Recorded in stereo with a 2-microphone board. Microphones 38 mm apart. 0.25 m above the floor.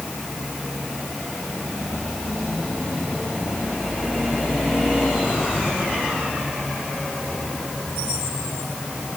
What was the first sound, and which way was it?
Only background noise.